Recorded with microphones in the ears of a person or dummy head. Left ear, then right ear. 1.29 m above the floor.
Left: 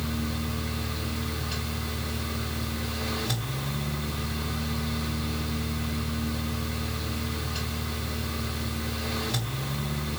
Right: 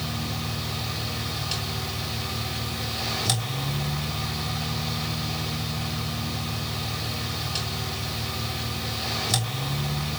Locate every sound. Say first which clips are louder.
0.0 s a fan: right 2 dB; 55° right (ahead or behind), 3 m